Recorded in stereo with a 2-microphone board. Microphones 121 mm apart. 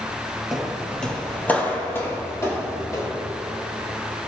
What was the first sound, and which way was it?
Footsteps, 5° right (ahead or behind).